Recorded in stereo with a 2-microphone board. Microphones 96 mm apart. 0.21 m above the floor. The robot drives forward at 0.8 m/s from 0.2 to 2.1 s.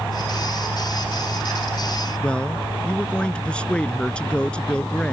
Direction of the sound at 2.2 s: 10° left (ahead or behind).